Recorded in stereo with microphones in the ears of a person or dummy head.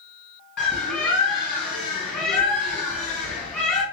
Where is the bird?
5° left (ahead or behind), 1.7 m.